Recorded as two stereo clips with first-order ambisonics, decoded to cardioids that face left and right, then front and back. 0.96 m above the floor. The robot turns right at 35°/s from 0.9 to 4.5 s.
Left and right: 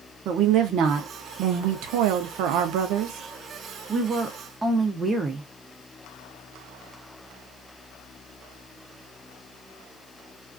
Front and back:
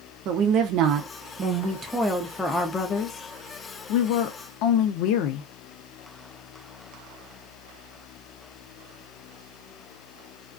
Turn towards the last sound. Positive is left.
turn(degrees=-10)